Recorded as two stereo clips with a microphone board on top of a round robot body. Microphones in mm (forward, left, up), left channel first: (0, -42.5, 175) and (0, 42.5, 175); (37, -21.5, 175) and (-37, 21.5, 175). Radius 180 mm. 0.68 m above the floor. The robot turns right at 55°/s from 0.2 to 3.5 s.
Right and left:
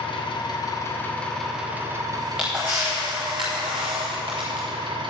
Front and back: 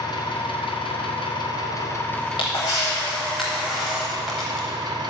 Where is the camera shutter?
10° right, 0.5 m; by 4.7 s 65° left, 0.5 m.